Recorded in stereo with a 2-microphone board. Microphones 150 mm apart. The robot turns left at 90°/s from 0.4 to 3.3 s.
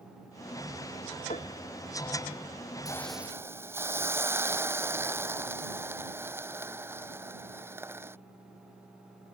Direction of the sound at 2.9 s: 25° left.